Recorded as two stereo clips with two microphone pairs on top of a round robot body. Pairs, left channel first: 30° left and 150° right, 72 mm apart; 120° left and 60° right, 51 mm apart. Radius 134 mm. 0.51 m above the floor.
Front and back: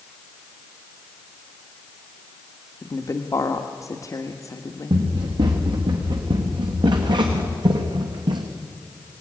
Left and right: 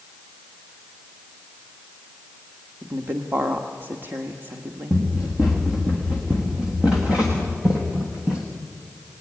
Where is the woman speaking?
15° right, 1.3 m.